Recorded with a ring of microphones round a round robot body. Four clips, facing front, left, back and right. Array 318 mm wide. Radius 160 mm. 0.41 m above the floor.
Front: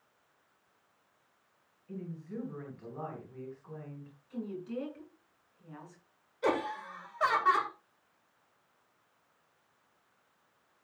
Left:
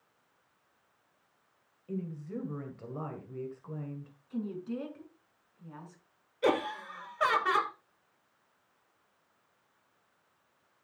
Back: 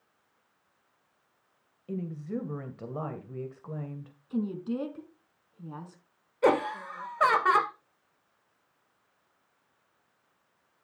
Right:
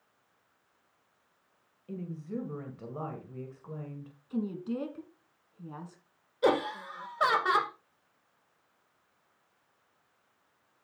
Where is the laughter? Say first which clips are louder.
Right 2 dB, back 7 dB; 160° right, 1.9 m.